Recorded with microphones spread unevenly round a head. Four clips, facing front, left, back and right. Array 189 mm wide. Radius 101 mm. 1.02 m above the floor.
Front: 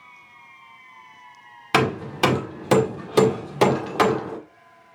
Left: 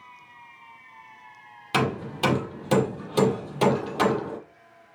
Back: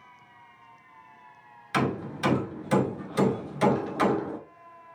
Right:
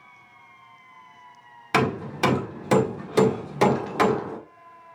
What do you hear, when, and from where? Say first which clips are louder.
1.7 s hammering: right 2 dB, front 6 dB; 15° right, 2 m